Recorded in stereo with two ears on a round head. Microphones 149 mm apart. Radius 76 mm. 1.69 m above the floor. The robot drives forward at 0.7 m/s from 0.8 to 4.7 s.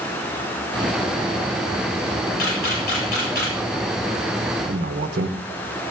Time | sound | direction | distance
2.4 | a camera shutter | 60° left (ahead or behind) | 7 m
4.7 | a man speaking | 55° right (ahead or behind) | 1.2 m